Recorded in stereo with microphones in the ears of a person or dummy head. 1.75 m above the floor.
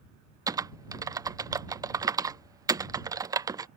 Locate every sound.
0.5 s typing on a keyboard: 20° right (ahead or behind)